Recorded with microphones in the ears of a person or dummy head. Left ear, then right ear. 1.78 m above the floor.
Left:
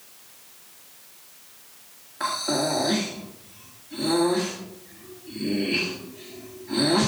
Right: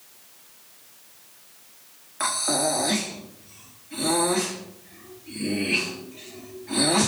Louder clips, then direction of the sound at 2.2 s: Even; 30° right (ahead or behind).